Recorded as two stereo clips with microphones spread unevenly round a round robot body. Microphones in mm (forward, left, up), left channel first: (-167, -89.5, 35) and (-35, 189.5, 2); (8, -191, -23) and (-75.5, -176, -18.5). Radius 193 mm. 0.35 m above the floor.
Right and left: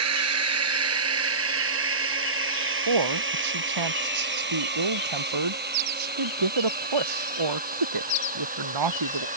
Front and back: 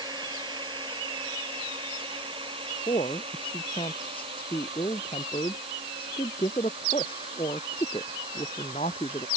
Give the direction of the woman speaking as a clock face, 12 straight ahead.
10 o'clock.